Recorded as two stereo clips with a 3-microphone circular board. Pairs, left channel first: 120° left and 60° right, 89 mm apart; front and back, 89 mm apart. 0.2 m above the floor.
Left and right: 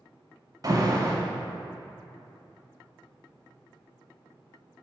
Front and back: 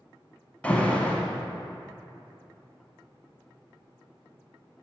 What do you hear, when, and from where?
0.6 s an alarm: 70° right, 1.0 m